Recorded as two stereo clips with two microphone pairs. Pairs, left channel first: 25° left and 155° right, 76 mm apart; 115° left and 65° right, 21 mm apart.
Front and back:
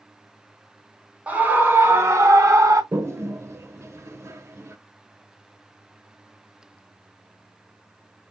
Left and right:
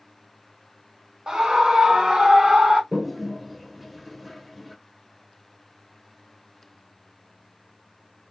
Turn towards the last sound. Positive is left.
turn(degrees=-165)